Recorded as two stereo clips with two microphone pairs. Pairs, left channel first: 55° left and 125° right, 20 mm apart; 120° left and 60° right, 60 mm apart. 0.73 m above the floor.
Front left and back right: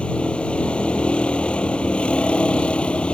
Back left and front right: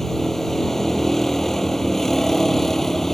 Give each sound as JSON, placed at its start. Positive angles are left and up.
{"t": 0.0, "sound": "a vehicle", "azimuth_deg": 35}